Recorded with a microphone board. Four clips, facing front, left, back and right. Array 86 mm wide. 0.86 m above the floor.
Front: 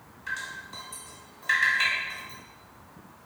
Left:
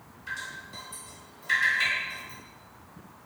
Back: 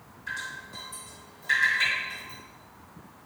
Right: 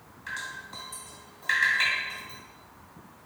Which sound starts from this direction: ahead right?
Dripping, at 0.3 s.